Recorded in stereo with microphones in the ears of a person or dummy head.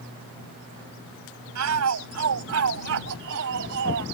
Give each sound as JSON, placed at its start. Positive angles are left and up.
{"t": 1.6, "sound": "a shout", "side_deg": -80}